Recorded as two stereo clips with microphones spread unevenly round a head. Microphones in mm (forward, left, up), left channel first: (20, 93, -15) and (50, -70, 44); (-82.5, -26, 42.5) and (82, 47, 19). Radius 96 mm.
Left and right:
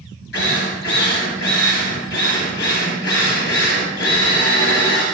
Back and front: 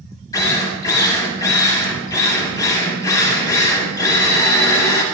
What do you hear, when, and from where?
0.3 s a drill: 135° left, 6 m